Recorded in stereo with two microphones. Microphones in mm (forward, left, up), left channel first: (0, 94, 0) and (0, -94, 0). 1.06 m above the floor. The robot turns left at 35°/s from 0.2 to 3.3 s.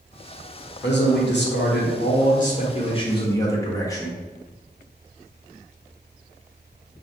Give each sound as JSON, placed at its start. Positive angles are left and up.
{"t": 0.8, "sound": "a man speaking", "azimuth_deg": 105, "distance_m": 1.2}